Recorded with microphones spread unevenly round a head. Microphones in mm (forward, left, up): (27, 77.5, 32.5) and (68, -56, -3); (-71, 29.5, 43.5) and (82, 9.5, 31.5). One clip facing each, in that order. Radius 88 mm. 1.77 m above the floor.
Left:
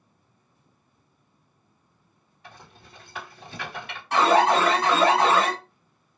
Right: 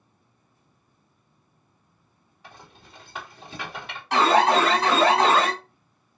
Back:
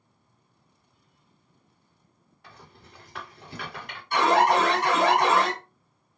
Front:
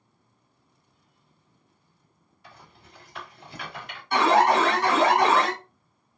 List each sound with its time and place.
2.4 s a rattle: 145° right, 1.8 m
4.1 s an alarm: 50° right, 1.6 m